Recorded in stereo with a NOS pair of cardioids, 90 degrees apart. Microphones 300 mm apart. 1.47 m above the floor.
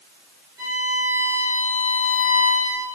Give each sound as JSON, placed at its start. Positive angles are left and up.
{"t": 0.6, "sound": "a violin", "azimuth_deg": -10, "distance_m": 1.8}